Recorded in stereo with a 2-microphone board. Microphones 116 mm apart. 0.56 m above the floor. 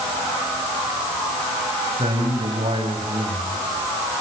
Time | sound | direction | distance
2.0 | a man speaking | 60° right (ahead or behind) | 4 m